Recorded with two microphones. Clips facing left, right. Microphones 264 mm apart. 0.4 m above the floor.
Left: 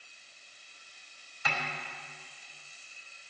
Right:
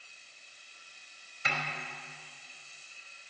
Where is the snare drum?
30° right (ahead or behind), 2.5 m.